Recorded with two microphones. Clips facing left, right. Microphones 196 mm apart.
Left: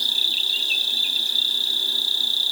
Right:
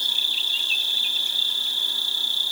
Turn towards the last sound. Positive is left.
turn(degrees=35)  # may be behind; listen again after turning